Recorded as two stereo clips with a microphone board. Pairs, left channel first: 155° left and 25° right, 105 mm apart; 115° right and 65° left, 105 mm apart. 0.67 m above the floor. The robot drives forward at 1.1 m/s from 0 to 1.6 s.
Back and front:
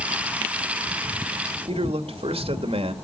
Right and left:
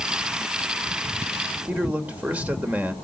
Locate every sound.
1.7 s a man speaking: 5° right, 2.5 m